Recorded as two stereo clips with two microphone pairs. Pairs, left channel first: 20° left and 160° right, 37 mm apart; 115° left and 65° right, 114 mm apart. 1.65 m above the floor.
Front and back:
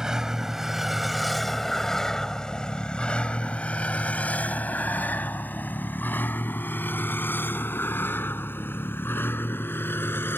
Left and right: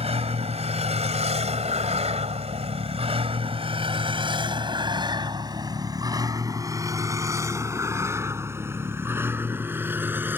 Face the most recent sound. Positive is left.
turn(degrees=5)